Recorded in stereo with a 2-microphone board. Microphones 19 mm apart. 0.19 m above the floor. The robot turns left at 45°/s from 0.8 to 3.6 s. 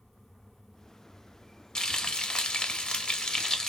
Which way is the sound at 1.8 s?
130° left.